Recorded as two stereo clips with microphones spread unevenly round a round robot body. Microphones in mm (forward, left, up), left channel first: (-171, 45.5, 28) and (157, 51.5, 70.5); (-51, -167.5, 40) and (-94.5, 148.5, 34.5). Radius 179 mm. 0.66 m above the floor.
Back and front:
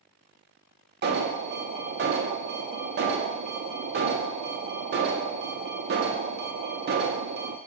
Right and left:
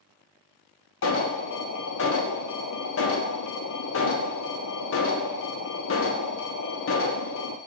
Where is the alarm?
55° right, 0.6 m.